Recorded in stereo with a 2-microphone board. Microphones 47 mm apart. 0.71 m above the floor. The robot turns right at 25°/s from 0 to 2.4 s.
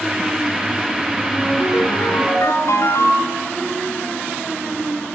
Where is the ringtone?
70° left (ahead or behind), 4 m; by 3.4 s 80° left, 4 m.